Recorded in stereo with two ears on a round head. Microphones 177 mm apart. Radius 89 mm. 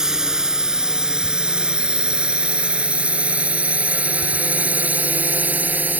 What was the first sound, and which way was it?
A drone, 5° right (ahead or behind).